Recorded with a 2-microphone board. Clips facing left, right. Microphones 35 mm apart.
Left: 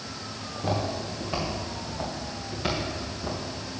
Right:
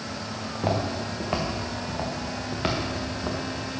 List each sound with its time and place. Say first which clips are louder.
0.4 s footsteps: right 2 dB; 65° right (ahead or behind), 3 m; by 3.4 s 30° right (ahead or behind), 3 m